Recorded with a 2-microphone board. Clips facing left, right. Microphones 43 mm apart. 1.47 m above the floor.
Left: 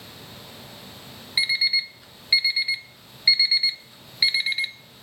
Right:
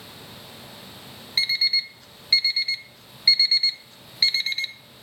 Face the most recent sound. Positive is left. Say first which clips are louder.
# left 1 dB
turn(degrees=10)  # may be behind; listen again after turning